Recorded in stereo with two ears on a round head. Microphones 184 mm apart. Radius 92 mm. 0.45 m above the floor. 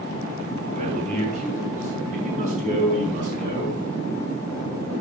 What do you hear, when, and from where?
0.7 s a man speaking: 35° right (ahead or behind), 3.5 m